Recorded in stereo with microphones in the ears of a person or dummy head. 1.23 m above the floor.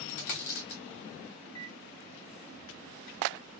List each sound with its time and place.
0.1 s a dropped coin: 60° left (ahead or behind), 1.5 m
1.4 s a microwave: 25° left (ahead or behind), 1.5 m